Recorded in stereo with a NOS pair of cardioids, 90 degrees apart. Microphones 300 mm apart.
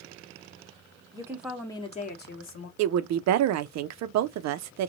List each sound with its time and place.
1.1 s a woman speaking: 15° right, 1.1 m; by 2.7 s 50° left, 1.3 m
2.8 s a woman speaking: 65° right, 0.5 m